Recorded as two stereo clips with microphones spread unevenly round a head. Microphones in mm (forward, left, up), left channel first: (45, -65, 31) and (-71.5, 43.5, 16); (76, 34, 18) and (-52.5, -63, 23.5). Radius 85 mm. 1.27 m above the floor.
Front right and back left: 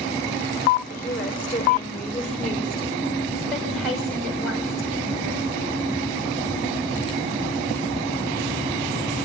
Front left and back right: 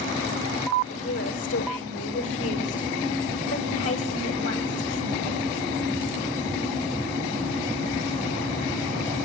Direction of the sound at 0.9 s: 35° left.